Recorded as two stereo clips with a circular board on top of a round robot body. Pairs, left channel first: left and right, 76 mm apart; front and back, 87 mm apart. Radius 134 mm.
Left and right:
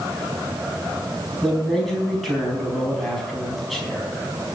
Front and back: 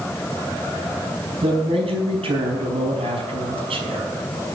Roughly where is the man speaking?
Behind.